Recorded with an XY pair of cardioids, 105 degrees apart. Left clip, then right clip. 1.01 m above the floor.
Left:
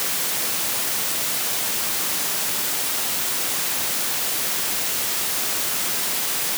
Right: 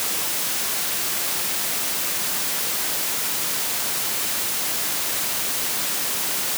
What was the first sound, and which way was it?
Only background noise.